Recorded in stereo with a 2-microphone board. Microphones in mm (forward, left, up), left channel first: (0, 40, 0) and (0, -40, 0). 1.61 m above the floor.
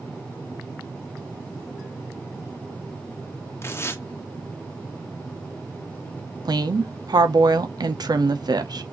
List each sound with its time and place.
3.6 s tearing paper: 35° left (ahead or behind), 0.9 m
6.5 s a woman speaking: 60° right (ahead or behind), 0.8 m